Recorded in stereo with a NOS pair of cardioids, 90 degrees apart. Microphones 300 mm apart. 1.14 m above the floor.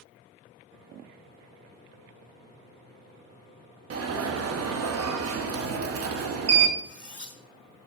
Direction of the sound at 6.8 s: 5° left.